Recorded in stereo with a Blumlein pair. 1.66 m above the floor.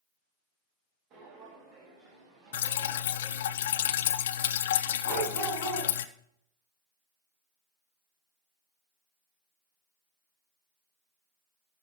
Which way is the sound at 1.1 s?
40° right.